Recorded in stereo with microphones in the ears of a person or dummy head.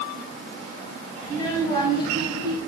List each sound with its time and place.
1.2 s a child speaking: 15° left (ahead or behind), 4.5 m; by 2.6 s 25° left (ahead or behind), 4 m